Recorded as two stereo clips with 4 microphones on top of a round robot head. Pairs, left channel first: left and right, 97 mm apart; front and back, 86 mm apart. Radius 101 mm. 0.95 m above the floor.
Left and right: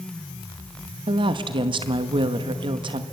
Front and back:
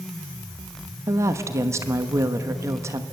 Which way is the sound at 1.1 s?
125° right.